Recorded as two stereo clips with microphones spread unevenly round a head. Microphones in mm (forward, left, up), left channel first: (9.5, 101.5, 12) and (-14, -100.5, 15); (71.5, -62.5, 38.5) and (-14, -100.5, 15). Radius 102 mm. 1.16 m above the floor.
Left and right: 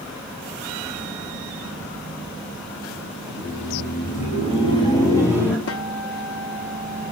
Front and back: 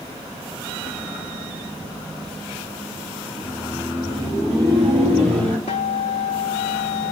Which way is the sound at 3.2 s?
105° left.